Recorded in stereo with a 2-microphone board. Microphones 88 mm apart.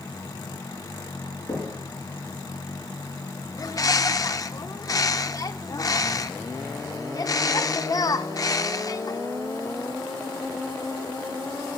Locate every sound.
1.5 s knocking: 80° left, 5.5 m
3.6 s a bird: 40° left (ahead or behind), 0.6 m